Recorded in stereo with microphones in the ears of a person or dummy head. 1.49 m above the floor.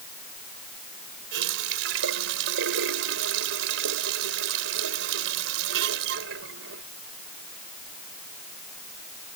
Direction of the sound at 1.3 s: 70° right (ahead or behind).